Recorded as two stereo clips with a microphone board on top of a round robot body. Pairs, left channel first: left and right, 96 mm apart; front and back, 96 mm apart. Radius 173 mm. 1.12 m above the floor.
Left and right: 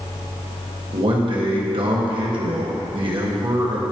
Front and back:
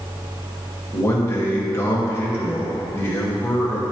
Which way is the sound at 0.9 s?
60° right.